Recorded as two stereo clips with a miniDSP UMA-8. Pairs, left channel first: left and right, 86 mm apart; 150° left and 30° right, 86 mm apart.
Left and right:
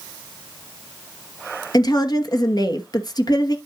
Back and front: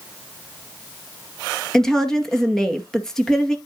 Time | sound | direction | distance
1.7 | a woman speaking | 65° left | 2.0 m